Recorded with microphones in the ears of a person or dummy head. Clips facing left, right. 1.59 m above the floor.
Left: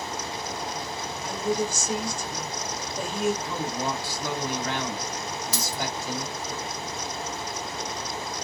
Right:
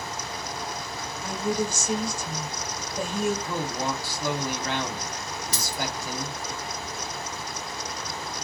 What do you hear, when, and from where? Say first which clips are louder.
1.2 s a woman speaking: even; 75° right (ahead or behind), 1.7 m
3.5 s a man speaking: even; 55° right (ahead or behind), 1.2 m
5.5 s a dropped coin: even; 20° right (ahead or behind), 1.8 m